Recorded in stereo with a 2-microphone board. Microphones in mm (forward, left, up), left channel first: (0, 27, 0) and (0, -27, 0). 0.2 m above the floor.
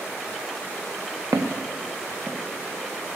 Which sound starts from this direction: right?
Footsteps, at 1.3 s.